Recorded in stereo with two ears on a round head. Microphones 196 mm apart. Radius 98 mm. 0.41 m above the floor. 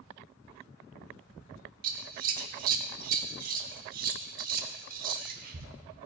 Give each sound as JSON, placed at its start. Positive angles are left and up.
{"t": 1.8, "sound": "scissors", "side_deg": -45, "distance_m": 0.8}